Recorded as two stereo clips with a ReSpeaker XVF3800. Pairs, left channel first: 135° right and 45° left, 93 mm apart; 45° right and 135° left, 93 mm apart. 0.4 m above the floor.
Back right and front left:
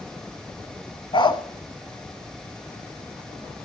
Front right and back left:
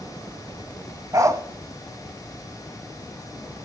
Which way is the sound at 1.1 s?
170° right.